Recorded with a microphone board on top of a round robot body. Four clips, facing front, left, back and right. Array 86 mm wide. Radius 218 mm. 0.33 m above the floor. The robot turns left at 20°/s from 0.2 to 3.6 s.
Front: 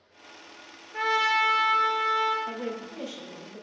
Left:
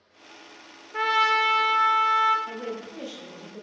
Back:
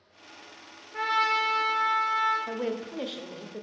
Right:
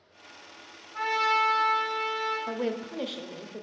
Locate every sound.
0.9 s a trumpet: 85° left, 1.0 m; by 2.4 s 55° left, 1.0 m
2.5 s a woman speaking: 115° right, 0.9 m; by 3.6 s 140° right, 0.9 m